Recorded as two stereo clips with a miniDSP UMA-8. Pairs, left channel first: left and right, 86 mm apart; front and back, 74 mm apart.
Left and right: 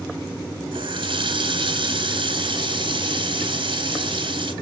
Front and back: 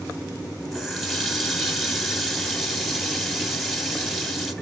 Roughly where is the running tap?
Right.